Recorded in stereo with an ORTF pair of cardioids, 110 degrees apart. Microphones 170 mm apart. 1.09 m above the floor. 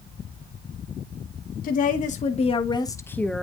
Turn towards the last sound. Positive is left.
turn(degrees=0)